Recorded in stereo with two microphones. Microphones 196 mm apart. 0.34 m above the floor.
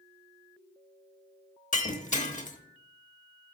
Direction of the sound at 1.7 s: 35° left (ahead or behind).